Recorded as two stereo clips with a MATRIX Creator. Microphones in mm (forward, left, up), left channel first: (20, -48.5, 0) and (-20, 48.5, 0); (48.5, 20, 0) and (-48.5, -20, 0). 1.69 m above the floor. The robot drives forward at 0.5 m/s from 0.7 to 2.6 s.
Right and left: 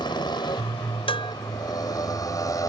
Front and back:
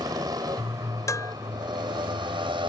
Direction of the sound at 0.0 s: 110° right.